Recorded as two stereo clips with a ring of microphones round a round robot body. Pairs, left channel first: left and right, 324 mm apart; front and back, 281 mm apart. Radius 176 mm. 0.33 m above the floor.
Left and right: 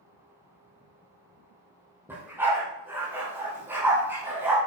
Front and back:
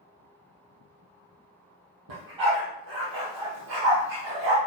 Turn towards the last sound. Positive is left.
turn(degrees=-175)